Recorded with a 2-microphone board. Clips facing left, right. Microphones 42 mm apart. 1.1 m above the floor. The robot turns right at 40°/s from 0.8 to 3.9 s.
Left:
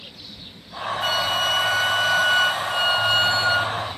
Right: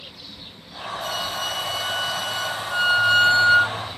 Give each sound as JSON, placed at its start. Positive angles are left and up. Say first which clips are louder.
{"t": 1.0, "sound": "a flute", "louder": "left 6 dB", "azimuth_deg": 70, "distance_m": 1.3}